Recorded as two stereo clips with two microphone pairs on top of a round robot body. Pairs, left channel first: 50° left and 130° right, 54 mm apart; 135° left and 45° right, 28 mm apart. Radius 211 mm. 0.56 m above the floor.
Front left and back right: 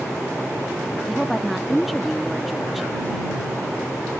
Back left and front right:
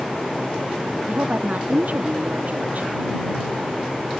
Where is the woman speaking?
35° right.